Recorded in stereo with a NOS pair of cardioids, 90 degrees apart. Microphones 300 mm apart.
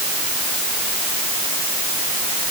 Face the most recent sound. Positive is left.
No sound to turn to.